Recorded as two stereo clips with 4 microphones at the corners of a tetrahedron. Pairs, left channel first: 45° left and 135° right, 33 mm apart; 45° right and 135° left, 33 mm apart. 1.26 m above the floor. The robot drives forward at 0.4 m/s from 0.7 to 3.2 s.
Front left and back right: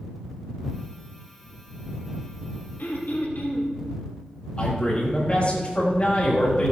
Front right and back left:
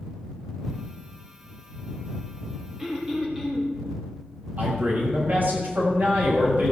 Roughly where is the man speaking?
Left.